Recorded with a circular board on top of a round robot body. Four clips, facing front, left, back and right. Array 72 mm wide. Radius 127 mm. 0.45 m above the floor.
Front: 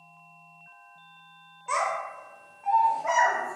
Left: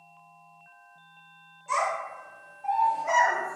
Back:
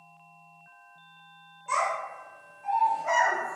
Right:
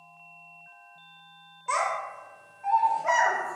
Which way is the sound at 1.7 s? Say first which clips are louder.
Even, even; 75° right.